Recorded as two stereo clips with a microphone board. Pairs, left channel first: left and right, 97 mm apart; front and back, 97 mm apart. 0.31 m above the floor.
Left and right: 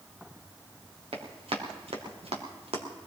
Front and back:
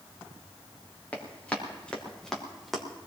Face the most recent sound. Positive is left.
turn(degrees=-90)